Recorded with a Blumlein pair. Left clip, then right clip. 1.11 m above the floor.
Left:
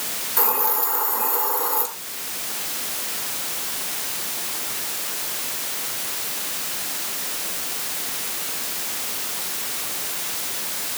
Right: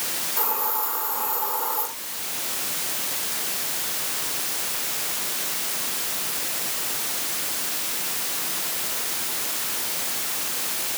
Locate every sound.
0.4 s a hiss: 70° left, 5.5 m